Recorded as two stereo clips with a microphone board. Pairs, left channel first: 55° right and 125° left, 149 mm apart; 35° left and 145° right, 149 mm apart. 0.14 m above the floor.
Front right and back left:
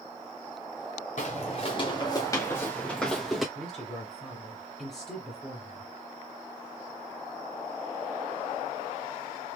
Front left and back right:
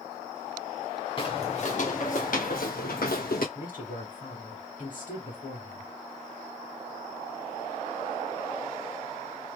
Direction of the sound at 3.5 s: 30° left.